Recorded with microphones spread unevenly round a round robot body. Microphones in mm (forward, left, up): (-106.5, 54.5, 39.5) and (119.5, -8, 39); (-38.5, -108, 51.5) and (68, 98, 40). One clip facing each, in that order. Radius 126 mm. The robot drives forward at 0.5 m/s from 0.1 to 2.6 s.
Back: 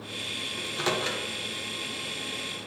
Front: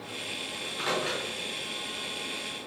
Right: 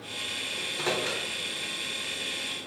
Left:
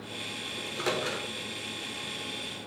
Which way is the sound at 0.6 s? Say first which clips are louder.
Back 2 dB, right 1 dB; 135° left.